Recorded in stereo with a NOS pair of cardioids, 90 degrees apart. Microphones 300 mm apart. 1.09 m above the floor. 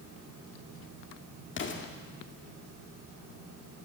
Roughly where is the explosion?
Ahead left.